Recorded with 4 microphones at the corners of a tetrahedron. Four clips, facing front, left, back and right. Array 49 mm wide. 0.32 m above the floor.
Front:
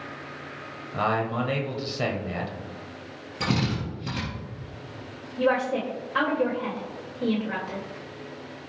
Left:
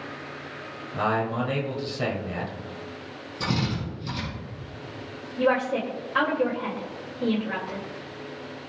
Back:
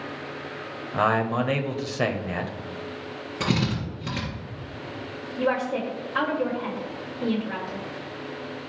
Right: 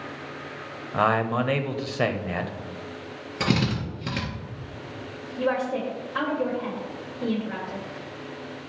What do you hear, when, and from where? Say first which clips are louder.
0.9 s a man speaking: right 3 dB, back 3 dB; 120° right, 1.0 m
3.4 s a drill: right 3 dB, back 1 dB; 105° right, 4 m
5.4 s a woman speaking: left 2 dB, front 1 dB; 70° left, 1.4 m